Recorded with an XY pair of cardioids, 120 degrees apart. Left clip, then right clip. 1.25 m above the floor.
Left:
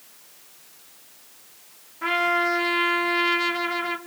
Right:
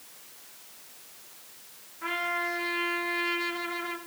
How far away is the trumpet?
About 2 m.